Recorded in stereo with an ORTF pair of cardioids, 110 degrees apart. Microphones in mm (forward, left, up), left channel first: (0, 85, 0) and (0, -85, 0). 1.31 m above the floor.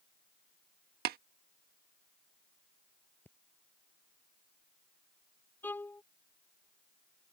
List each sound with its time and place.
1.1 s tapping: 65° right
3.2 s breathing: 10° left
5.6 s a violin: 10° left